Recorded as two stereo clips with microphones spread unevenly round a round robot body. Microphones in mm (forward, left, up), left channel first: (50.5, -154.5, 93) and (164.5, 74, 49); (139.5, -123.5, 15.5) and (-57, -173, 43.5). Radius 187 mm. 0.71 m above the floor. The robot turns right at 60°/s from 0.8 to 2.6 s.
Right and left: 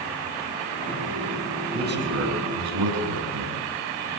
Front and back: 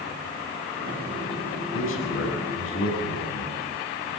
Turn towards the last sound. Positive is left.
turn(degrees=55)